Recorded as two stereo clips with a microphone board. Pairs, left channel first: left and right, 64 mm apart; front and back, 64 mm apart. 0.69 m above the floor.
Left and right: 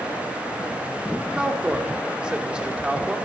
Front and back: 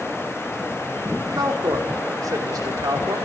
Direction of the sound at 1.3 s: 165° right.